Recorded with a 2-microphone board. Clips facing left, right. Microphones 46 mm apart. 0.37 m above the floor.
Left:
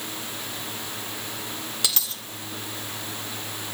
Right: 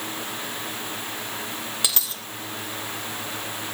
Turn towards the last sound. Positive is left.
turn(degrees=-20)  # may be behind; listen again after turning